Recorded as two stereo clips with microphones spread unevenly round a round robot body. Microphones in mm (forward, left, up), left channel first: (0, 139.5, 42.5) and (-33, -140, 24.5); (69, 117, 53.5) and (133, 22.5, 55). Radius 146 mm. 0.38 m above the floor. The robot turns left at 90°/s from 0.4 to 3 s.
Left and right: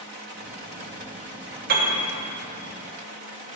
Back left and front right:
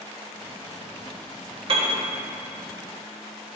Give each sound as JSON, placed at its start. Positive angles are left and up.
{"t": 1.7, "sound": "a piano", "azimuth_deg": -50, "distance_m": 1.7}